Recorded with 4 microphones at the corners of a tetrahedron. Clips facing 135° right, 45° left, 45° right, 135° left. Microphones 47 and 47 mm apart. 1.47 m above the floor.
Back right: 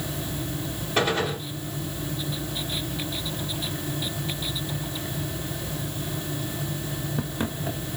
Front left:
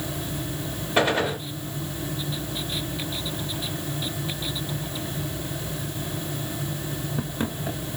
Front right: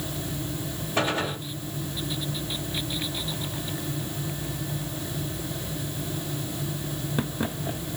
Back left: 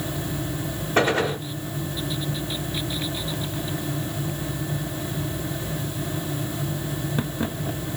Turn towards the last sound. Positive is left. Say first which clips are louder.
# front left 2 dB, back left 6 dB
turn(degrees=125)